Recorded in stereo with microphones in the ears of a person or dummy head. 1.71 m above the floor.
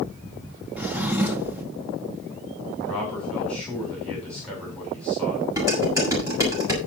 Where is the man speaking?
5° left (ahead or behind), 7 m.